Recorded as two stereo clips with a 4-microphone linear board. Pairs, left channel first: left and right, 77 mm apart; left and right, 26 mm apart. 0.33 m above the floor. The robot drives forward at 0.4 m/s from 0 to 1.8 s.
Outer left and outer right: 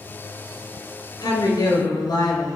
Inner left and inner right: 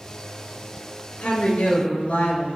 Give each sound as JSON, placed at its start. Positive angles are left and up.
{"t": 1.2, "sound": "a woman speaking", "side_deg": 65, "distance_m": 4.0}